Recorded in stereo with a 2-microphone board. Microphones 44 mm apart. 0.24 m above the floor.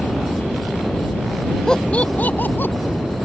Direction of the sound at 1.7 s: 15° left (ahead or behind).